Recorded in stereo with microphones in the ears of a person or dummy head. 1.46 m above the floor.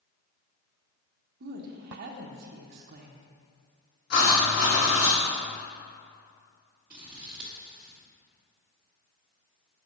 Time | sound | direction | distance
1.4 | a woman speaking | 55° right (ahead or behind) | 0.5 m
4.1 | writing | 55° left (ahead or behind) | 1.5 m
6.9 | scissors | 10° right (ahead or behind) | 1.0 m